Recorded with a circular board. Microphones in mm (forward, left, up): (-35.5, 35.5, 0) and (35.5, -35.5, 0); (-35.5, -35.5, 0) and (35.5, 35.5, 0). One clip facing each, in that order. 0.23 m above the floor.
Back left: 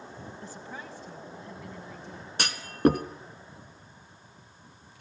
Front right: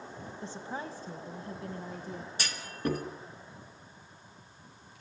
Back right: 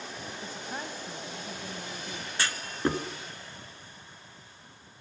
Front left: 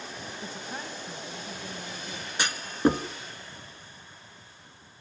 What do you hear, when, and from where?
0.4 s a woman speaking: 35° right, 1.0 m; by 2.3 s 80° right, 2.0 m
2.4 s a clunk: 115° left, 1.3 m